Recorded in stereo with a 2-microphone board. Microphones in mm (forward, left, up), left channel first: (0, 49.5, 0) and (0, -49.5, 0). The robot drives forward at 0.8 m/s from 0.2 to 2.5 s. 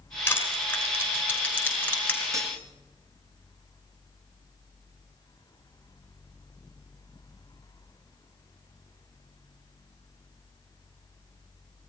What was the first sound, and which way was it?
Crushing, 25° left (ahead or behind).